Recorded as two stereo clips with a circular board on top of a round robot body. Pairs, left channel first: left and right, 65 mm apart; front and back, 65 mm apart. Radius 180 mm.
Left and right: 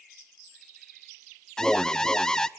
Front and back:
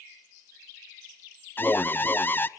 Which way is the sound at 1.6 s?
20° left.